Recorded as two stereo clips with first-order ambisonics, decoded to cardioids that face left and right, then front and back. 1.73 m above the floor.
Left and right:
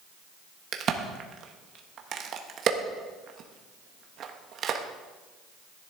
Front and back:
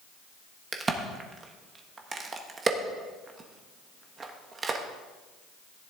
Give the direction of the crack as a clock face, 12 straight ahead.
4 o'clock.